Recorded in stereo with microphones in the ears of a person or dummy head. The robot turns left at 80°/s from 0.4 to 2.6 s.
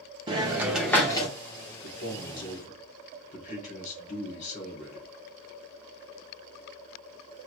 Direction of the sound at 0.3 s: 145° right.